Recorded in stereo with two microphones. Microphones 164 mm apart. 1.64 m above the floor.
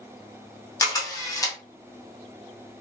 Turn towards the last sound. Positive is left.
turn(degrees=20)  # may be behind; listen again after turning